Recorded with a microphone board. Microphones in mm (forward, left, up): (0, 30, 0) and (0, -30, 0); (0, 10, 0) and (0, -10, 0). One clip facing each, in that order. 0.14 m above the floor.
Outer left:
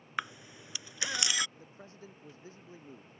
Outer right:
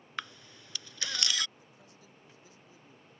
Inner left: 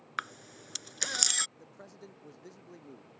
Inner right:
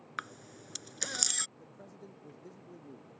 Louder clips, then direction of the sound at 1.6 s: Outer left 6 dB, inner left 1 dB; 40° left (ahead or behind).